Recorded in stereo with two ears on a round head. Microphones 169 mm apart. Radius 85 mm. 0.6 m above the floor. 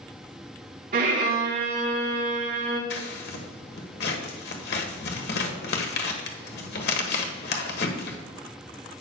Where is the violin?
55° right (ahead or behind), 3 m.